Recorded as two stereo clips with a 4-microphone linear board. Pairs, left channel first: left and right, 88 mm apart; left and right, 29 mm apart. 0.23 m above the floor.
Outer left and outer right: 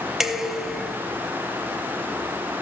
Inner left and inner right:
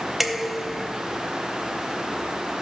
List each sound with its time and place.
0.2 s dishes clattering: 5° right (ahead or behind), 0.9 m